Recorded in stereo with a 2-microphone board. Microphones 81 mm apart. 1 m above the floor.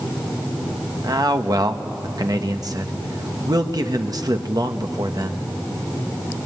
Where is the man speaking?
50° right (ahead or behind), 1.4 m.